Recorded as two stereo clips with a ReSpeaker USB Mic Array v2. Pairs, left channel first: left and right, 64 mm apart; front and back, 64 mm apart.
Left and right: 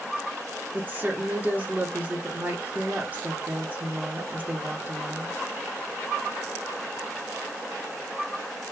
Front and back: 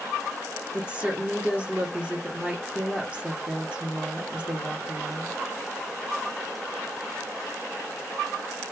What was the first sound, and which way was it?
A woman speaking, 125° right.